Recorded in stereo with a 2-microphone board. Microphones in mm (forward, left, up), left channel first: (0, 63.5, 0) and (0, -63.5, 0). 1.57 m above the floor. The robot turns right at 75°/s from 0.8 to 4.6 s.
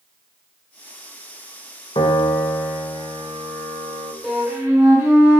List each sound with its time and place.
1.9 s a piano: 130° left, 0.7 m; by 4.1 s 65° right, 0.7 m
4.2 s a flute: 5° right (ahead or behind), 1.5 m; by 5.4 s 20° right (ahead or behind), 1.5 m